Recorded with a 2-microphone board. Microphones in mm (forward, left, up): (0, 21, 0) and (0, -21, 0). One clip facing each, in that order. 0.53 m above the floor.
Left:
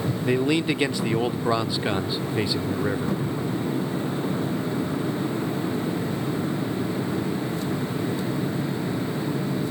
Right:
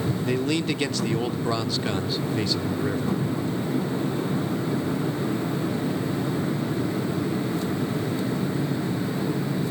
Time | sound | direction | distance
0.2 | a man speaking | 15° left (ahead or behind) | 0.8 m